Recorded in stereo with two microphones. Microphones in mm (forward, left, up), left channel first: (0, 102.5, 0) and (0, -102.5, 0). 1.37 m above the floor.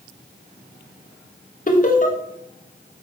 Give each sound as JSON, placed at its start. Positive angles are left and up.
{"t": 1.7, "sound": "laughter", "side_deg": 40, "distance_m": 0.6}